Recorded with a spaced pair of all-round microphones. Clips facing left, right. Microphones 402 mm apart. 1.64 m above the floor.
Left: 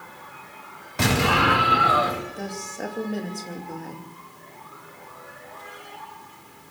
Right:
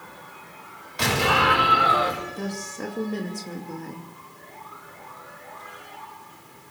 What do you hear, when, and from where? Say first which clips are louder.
1.0 s an explosion: left 2 dB; 55° left (ahead or behind), 4 m
2.4 s a woman speaking: right 1 dB; 10° right (ahead or behind), 2.5 m